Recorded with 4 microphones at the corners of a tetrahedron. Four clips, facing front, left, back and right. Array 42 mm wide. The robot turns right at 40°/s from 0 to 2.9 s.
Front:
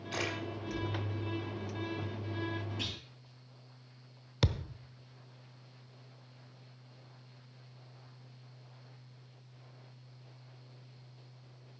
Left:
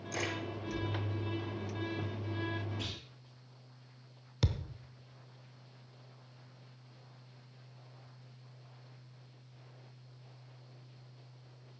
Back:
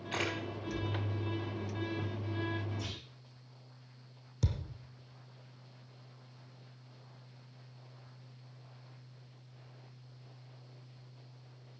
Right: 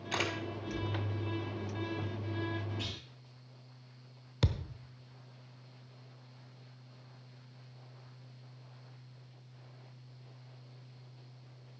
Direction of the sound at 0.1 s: 110° right.